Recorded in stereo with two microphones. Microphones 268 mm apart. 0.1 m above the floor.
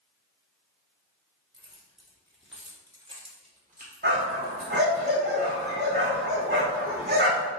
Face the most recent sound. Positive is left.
turn(degrees=-35)  # may be behind; listen again after turning